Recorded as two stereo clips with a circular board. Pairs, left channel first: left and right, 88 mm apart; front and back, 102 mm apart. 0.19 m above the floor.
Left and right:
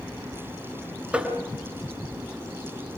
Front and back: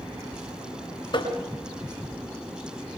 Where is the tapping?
15° right, 2.5 m.